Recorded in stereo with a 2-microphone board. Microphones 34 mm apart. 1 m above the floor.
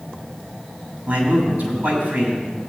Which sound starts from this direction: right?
A man speaking, at 1.1 s.